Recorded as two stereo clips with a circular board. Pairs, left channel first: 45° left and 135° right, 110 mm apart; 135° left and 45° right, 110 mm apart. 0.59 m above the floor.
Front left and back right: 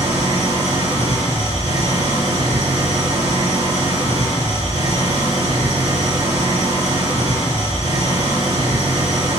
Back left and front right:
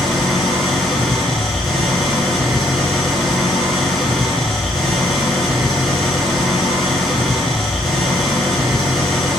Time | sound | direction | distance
0.0 | an engine running | 140° right | 4 m